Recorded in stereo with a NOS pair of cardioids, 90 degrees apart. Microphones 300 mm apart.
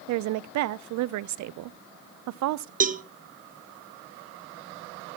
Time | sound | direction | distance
0.1 | a woman speaking | 70° right | 0.5 m
2.8 | a cowbell | 25° right | 0.6 m